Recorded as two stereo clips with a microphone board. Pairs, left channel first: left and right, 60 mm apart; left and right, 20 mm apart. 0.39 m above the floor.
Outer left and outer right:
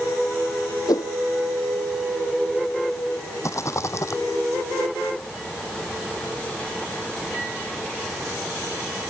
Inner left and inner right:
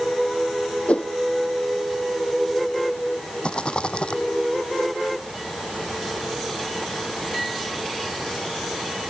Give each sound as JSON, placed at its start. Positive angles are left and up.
{"t": 0.9, "sound": "a whoosh", "side_deg": 85}
{"t": 3.4, "sound": "a rattle", "side_deg": 55}